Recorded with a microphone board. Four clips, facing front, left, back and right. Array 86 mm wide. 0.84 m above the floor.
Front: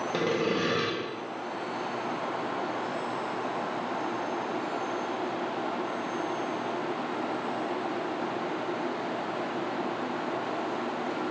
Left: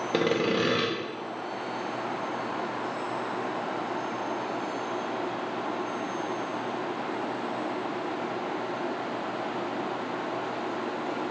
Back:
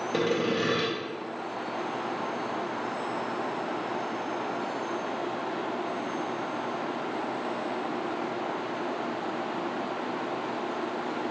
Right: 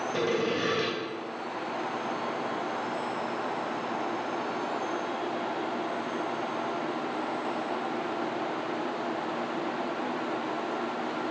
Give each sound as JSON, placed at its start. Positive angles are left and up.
{"t": 0.1, "sound": "sawing", "azimuth_deg": 95, "distance_m": 0.7}